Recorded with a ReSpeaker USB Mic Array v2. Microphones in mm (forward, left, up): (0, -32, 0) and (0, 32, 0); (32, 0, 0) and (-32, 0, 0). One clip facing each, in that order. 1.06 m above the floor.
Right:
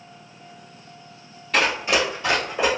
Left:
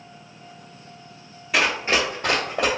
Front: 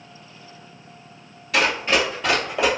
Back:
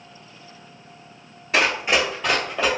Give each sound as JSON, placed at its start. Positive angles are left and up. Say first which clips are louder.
{"t": 1.5, "sound": "running footsteps", "louder": "right 1 dB, even", "azimuth_deg": 155, "distance_m": 1.1}